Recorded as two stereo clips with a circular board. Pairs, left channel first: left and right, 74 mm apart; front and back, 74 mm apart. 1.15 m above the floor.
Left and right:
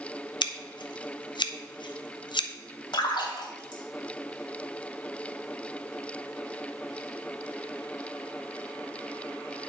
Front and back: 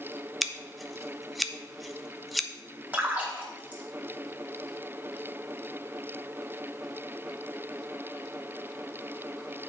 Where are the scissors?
90° left, 0.6 m.